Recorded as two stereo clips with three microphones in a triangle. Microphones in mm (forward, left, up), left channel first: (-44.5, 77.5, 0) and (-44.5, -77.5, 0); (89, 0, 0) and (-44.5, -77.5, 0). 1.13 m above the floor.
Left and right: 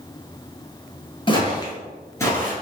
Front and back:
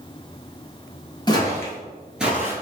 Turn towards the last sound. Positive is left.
turn(degrees=155)